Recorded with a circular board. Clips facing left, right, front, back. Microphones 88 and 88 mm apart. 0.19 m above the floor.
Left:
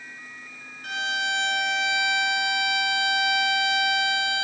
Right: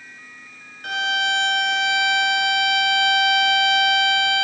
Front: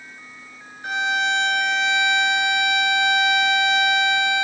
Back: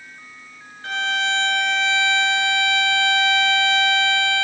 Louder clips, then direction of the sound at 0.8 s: Right 5 dB, front 1 dB; 75° right.